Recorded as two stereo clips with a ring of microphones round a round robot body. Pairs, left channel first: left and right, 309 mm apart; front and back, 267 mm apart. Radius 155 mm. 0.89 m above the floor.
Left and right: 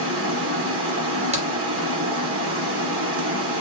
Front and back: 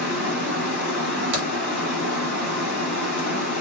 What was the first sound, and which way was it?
Running water, 40° right.